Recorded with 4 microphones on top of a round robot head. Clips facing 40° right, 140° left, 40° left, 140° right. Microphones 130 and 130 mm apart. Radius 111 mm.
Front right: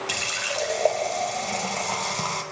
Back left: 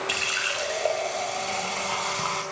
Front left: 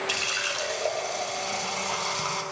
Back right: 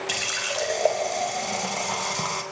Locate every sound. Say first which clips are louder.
0.1 s a running tap: front right 1 dB, back right 2 dB; 95° right, 4.5 m